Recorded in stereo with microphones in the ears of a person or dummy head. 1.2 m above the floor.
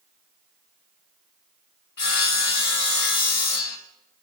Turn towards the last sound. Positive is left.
turn(degrees=60)  # may be behind; listen again after turning